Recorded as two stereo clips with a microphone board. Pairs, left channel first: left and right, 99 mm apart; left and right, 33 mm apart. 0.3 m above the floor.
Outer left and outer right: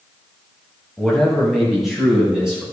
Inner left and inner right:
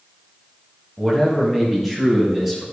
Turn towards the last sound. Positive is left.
turn(degrees=-5)  # may be behind; listen again after turning